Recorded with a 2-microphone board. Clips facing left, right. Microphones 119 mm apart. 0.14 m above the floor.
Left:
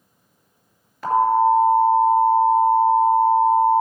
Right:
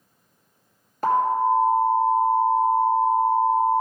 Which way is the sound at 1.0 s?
45° right (ahead or behind).